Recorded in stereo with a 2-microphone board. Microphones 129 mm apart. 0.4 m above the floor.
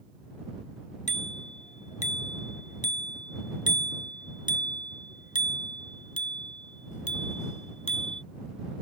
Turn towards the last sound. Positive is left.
turn(degrees=65)  # may be behind; listen again after turning